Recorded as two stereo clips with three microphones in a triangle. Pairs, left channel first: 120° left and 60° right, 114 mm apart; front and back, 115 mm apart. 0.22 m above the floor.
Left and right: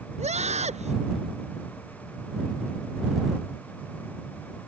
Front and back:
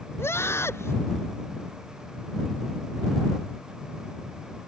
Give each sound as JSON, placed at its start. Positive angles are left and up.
{"t": 0.2, "sound": "a scream", "azimuth_deg": -70}